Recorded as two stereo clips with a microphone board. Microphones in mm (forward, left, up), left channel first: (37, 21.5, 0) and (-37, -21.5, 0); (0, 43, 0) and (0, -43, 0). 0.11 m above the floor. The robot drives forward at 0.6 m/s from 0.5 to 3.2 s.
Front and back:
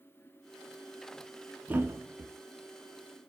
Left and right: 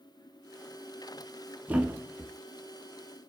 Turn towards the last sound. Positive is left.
turn(degrees=-170)